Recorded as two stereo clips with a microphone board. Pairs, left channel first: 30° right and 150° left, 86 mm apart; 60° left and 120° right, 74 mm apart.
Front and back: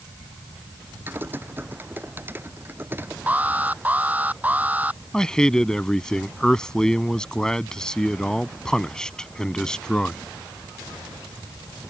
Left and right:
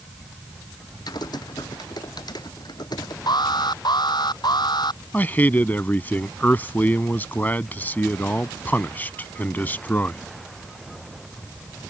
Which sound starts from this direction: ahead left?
A man speaking, at 5.1 s.